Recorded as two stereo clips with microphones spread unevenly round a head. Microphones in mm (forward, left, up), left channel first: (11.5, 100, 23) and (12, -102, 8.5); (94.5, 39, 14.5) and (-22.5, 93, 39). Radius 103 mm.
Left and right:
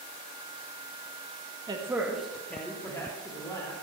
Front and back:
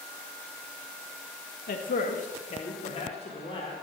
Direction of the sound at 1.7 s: 20° right.